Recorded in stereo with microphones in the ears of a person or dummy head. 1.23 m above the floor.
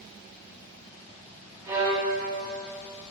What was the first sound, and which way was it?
A violin, 15° right (ahead or behind).